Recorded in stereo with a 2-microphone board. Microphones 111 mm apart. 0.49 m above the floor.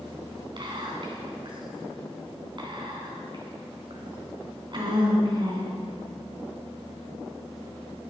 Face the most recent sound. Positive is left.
turn(degrees=-45)  # may be behind; listen again after turning